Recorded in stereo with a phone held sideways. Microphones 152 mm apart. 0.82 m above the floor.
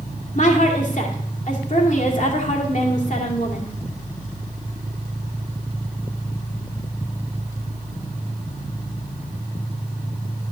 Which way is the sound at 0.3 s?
55° left (ahead or behind).